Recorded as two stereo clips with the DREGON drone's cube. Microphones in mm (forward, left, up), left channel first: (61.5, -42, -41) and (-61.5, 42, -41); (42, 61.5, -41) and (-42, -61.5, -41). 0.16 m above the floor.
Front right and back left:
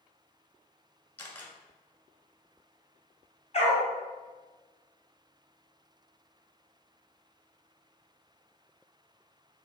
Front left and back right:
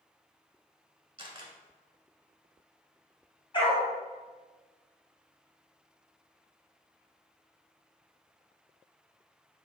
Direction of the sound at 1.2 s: 100° right.